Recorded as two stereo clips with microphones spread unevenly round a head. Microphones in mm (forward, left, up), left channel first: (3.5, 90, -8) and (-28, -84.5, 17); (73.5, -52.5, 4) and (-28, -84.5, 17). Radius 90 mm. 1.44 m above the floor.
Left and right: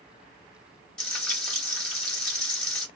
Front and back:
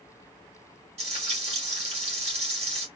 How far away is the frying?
About 1.9 m.